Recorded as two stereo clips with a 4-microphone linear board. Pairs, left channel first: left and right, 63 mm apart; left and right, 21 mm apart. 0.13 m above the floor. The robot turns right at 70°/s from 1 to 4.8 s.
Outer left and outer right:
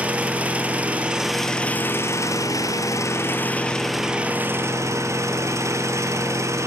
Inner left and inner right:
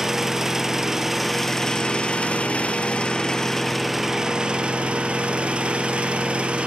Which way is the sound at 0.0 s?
25° right.